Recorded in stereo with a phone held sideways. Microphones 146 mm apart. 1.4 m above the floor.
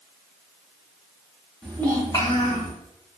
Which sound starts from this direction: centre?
A child speaking, at 1.6 s.